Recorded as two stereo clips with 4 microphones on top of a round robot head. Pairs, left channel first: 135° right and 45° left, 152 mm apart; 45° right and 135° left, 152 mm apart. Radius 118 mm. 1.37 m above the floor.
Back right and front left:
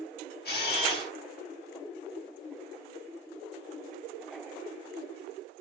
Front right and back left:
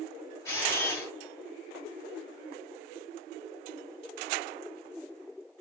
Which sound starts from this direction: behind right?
A camera shutter, at 0.5 s.